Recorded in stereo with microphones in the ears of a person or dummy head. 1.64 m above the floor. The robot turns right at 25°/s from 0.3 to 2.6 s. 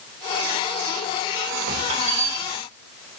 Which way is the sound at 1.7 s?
45° right (ahead or behind).